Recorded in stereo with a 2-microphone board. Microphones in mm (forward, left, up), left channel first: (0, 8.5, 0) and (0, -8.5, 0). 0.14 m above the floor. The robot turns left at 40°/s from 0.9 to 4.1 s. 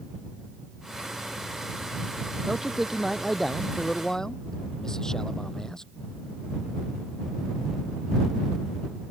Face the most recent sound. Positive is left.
turn(degrees=150)